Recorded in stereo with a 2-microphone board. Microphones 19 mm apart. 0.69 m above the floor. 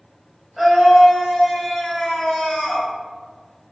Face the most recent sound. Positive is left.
turn(degrees=35)  # may be behind; listen again after turning